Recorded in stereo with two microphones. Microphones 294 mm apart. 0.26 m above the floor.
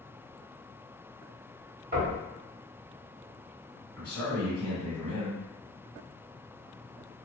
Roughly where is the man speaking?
Centre.